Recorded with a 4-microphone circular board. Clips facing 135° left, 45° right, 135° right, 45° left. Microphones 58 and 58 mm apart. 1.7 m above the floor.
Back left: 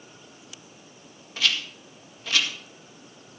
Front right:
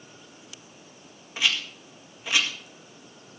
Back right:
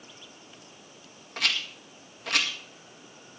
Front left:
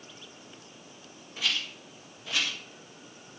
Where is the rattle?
115° right, 1.8 m.